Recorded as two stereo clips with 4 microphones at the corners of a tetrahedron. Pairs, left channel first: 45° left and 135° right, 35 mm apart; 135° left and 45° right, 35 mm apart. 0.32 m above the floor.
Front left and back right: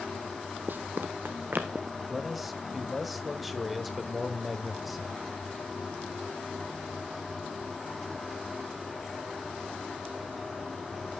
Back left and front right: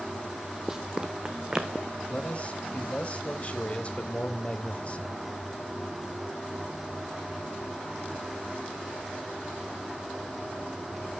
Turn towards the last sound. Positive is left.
turn(degrees=140)